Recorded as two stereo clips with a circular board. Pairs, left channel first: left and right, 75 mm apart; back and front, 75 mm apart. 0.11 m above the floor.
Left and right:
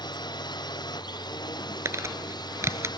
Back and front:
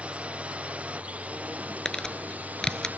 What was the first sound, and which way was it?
A drone, 75° left.